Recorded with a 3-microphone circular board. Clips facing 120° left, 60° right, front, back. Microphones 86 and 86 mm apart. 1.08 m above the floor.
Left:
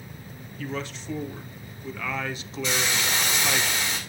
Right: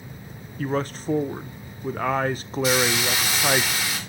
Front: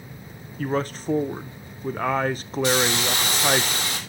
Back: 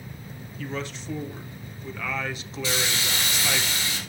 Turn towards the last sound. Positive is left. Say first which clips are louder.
# right 5 dB, front 7 dB
turn(degrees=25)